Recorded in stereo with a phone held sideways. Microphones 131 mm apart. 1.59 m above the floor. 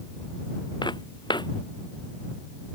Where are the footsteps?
35° left (ahead or behind).